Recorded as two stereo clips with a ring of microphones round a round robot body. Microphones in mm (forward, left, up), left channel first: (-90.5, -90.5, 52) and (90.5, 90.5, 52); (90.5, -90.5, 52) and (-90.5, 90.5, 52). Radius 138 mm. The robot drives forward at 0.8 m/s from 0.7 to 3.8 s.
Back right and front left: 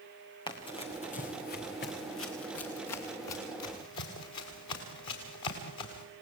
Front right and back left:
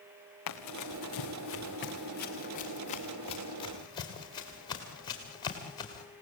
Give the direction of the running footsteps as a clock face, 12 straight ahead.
2 o'clock.